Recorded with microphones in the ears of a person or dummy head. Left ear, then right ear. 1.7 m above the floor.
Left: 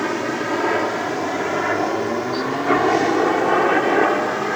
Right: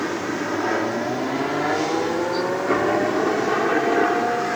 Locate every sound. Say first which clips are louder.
0.0 s a helicopter: left 3 dB; 30° left (ahead or behind)